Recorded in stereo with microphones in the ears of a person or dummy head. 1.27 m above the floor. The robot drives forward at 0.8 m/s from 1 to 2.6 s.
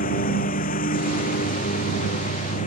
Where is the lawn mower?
45° left (ahead or behind).